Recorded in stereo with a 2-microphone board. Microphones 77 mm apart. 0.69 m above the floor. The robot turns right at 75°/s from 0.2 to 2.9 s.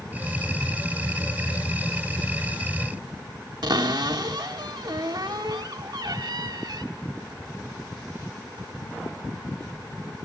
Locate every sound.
3.6 s a cupboard door: 65° right (ahead or behind), 1.3 m